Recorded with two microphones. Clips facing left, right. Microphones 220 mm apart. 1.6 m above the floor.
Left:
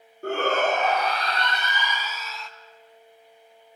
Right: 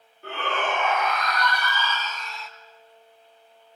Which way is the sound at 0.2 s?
50° left (ahead or behind).